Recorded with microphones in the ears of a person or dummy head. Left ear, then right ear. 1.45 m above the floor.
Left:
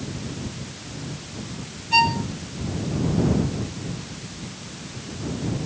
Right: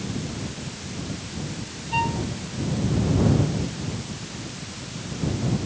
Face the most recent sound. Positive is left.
turn(degrees=85)